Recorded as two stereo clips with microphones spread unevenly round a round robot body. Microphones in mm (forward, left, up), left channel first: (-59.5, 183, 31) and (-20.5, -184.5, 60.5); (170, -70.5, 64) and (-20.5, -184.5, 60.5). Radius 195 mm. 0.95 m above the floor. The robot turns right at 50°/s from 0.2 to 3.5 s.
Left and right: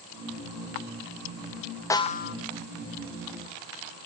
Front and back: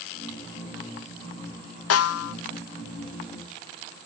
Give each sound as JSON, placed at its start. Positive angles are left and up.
{"t": 1.9, "sound": "a snare drum", "azimuth_deg": 15, "distance_m": 0.6}